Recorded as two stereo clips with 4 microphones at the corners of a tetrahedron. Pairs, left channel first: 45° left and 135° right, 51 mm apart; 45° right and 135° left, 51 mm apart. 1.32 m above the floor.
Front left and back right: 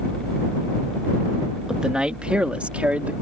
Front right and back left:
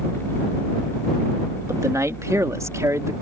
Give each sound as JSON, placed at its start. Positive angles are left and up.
{"t": 1.7, "sound": "a man speaking", "azimuth_deg": 150}